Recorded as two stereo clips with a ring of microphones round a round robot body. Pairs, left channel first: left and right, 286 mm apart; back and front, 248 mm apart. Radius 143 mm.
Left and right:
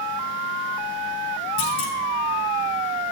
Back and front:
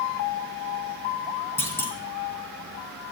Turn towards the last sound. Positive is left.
turn(degrees=100)